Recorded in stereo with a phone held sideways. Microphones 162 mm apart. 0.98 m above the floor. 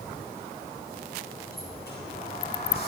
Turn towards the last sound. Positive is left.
turn(degrees=75)  # may be behind; listen again after turning